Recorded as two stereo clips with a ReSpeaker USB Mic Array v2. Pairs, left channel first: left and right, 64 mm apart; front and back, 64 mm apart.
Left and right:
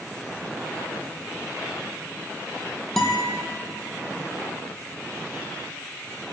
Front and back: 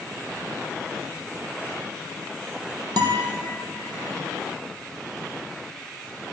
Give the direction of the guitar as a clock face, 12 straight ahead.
6 o'clock.